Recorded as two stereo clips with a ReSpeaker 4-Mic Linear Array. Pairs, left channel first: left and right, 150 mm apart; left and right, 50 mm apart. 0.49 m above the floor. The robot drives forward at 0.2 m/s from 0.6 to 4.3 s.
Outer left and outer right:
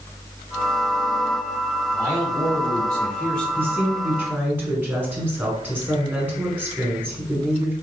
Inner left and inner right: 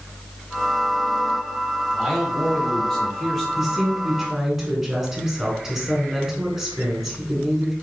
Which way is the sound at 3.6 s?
10° right (ahead or behind).